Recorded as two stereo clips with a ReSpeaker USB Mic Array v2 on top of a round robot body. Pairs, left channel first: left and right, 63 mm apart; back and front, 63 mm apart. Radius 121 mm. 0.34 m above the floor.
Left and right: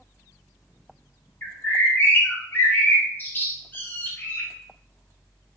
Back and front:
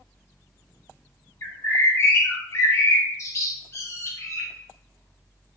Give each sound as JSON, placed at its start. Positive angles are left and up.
{"t": 1.4, "sound": "a bird", "azimuth_deg": 145, "distance_m": 1.1}